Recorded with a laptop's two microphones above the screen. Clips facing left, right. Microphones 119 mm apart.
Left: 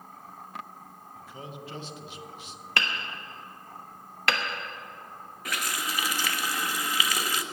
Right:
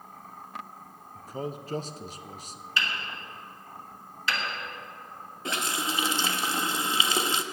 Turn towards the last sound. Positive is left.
turn(degrees=-25)  # may be behind; listen again after turning